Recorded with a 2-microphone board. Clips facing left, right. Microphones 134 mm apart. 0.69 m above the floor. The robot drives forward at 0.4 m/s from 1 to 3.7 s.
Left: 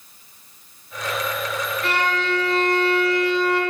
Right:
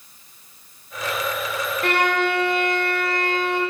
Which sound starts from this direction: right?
A violin, at 1.8 s.